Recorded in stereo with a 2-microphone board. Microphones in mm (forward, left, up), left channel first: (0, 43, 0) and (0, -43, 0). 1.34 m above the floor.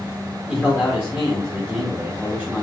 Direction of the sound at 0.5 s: Centre (ahead or behind).